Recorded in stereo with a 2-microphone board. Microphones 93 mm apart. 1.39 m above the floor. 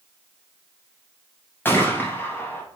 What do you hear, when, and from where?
1.6 s a gunshot: 20° left (ahead or behind), 0.7 m